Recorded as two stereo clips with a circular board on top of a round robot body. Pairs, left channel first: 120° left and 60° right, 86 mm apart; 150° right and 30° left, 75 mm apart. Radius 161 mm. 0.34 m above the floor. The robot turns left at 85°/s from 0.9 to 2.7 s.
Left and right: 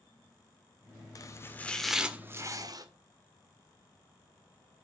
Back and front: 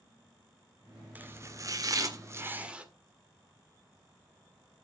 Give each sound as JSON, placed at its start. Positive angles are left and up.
{"t": 1.1, "sound": "chopping", "azimuth_deg": 90, "distance_m": 1.7}